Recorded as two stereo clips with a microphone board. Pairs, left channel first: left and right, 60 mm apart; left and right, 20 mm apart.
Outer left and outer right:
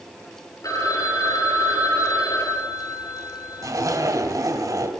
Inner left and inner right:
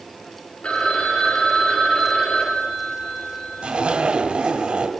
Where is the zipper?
75° right (ahead or behind), 2.5 m.